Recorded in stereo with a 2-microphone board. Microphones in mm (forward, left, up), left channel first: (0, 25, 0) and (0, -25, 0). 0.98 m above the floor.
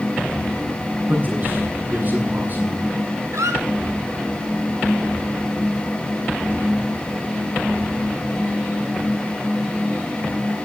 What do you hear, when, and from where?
1.1 s a man speaking: 40° right (ahead or behind), 8 m
3.3 s a squeak: 75° right (ahead or behind), 2.5 m